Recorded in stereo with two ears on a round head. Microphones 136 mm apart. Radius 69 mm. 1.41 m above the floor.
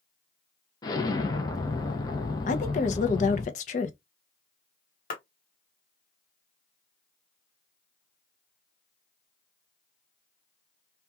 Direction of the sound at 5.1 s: 60° left (ahead or behind).